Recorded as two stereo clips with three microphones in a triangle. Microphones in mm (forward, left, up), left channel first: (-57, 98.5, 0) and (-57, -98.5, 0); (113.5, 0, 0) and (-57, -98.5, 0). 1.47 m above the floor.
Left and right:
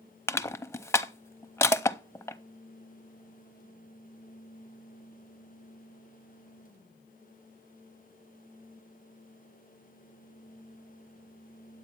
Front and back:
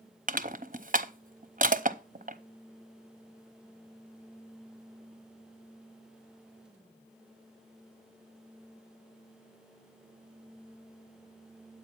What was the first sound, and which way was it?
Crushing, 170° left.